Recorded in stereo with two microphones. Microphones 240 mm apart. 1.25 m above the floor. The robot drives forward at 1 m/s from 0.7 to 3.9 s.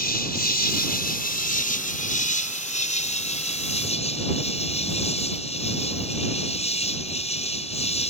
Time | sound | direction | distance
0.0 | an insect | 40° left (ahead or behind) | ?